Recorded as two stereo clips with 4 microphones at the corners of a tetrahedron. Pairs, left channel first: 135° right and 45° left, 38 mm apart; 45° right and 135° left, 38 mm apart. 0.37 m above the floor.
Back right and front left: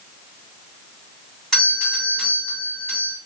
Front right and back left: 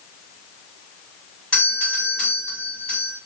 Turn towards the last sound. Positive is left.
turn(degrees=-75)